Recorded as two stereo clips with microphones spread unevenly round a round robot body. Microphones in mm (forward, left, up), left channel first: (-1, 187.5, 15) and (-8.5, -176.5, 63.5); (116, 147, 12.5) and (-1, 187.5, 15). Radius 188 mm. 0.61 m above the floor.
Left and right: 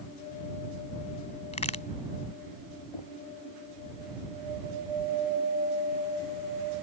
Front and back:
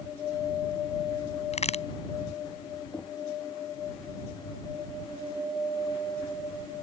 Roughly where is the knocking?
Ahead left.